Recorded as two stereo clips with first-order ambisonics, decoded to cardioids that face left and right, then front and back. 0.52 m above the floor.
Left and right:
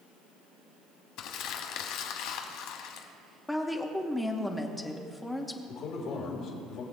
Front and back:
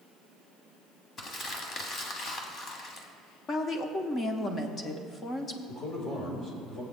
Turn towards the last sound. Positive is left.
turn(degrees=50)